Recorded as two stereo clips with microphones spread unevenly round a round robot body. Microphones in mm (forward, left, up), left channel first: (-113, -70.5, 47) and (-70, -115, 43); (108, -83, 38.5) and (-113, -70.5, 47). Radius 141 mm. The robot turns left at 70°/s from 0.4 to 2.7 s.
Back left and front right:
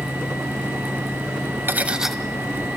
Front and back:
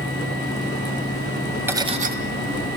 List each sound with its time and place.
1.7 s cutlery clinking: 100° right, 1.9 m; by 2.1 s 135° right, 1.9 m